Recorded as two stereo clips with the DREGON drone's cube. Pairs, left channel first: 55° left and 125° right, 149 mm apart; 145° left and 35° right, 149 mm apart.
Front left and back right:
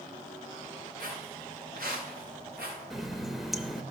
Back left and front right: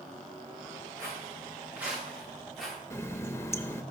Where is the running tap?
150° left, 0.6 m.